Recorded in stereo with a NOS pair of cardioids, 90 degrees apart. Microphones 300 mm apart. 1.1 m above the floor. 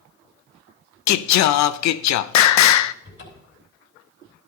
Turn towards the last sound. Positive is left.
turn(degrees=45)